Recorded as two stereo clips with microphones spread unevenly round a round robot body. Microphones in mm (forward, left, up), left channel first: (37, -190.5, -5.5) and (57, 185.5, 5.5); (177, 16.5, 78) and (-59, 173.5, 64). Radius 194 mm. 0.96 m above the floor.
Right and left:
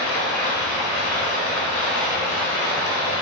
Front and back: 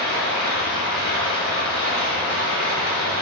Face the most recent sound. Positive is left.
turn(degrees=-125)